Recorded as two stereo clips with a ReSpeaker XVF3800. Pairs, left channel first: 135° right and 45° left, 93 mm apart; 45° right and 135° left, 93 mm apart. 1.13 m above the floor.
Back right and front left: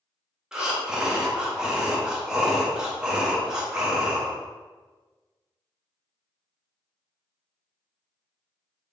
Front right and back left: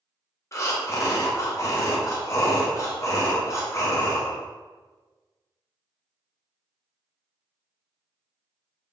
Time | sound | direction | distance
0.5 | breathing | 30° right | 0.6 m